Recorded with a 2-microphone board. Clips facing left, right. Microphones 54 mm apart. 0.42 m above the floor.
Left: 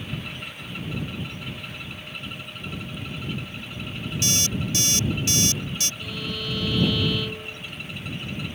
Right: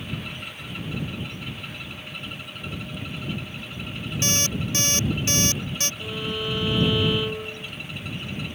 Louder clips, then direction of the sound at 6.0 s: Right 3 dB; 25° right (ahead or behind).